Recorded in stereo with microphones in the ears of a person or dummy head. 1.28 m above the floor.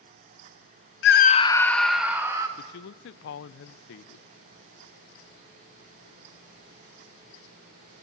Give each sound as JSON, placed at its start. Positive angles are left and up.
{"t": 1.0, "sound": "a scream", "side_deg": 65, "distance_m": 0.7}
{"t": 2.6, "sound": "a man speaking", "side_deg": 70, "distance_m": 0.6}